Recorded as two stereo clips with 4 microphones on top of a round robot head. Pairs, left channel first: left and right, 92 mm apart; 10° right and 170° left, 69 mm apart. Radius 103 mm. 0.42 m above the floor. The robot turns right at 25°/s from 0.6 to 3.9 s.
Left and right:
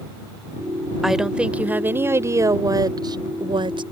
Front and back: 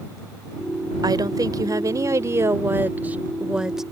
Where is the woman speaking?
175° right; by 3.8 s 105° right.